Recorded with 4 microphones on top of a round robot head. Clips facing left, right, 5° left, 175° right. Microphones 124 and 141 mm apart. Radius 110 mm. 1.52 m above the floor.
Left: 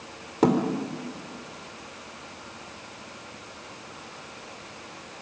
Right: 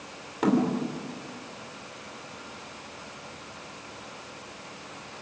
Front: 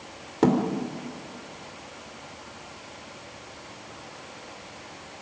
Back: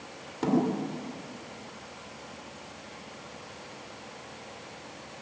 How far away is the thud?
About 3 m.